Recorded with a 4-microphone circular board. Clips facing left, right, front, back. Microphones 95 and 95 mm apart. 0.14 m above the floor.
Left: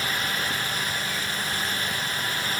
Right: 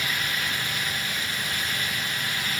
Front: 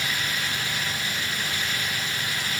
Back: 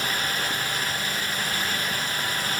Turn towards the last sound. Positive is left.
No sound to turn to.